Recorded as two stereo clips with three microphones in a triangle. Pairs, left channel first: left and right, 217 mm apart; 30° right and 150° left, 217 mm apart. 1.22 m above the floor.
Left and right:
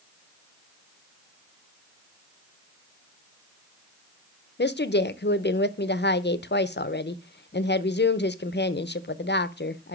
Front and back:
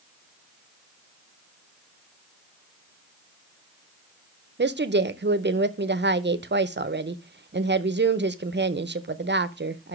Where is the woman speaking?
120° left, 0.5 m.